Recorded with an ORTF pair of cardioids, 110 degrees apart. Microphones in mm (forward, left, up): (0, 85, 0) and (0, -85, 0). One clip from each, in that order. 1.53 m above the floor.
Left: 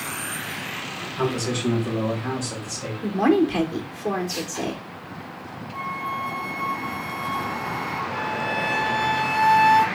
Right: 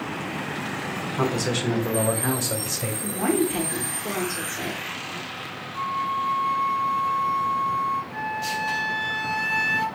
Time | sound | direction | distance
1.2 | a man speaking | 20° right | 1.3 m
3.0 | a woman speaking | 30° left | 1.1 m
5.7 | a flute | 60° left | 1.0 m
8.1 | a flute | 35° left | 1.2 m